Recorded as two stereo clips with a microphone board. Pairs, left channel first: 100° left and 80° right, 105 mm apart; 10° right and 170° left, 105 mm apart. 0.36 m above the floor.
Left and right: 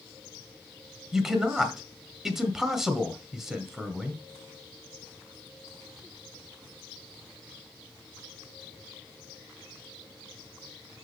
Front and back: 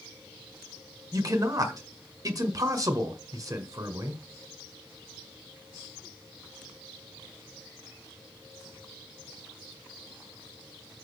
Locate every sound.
1.1 s a man speaking: 160° right, 1.6 m